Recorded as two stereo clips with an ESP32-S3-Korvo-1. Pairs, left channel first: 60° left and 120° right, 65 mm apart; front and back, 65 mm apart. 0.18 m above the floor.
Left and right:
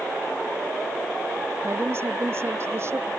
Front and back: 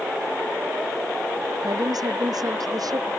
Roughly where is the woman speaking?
Behind.